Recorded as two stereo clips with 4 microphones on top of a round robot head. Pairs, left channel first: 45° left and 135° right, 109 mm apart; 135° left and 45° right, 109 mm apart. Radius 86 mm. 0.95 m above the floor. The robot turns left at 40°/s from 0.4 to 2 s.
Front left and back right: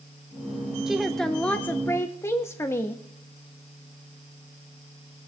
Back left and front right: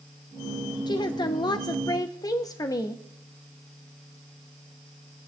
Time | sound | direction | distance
0.9 | a woman speaking | 145° left | 0.8 m